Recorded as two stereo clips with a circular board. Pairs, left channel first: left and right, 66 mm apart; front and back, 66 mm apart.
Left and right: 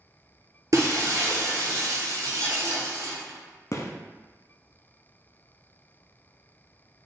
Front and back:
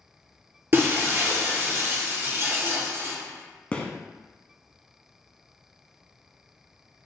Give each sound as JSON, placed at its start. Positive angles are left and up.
{"t": 0.7, "sound": "breaking glass", "azimuth_deg": -125, "distance_m": 1.8}
{"t": 3.7, "sound": "a gunshot", "azimuth_deg": 70, "distance_m": 0.6}